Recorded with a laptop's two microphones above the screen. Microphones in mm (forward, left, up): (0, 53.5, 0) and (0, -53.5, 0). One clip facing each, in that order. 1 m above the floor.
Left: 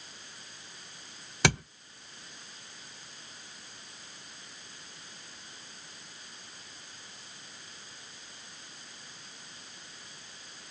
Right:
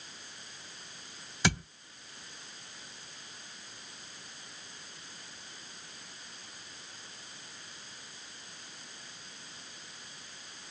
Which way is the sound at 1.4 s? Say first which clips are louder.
Left 3 dB; 70° left (ahead or behind).